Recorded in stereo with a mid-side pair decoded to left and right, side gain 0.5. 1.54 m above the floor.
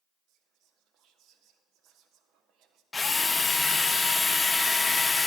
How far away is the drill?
About 0.7 m.